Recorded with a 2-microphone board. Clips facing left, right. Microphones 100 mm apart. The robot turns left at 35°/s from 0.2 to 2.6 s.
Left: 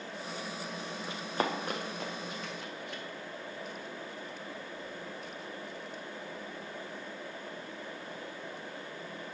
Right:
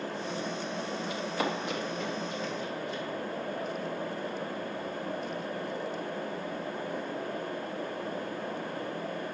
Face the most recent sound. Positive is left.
turn(degrees=70)  # may be behind; listen again after turning